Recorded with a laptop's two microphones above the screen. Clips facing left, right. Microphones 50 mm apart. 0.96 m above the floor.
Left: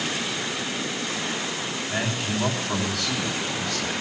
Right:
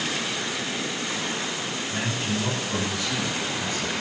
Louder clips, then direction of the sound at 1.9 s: Left 1 dB; 85° left.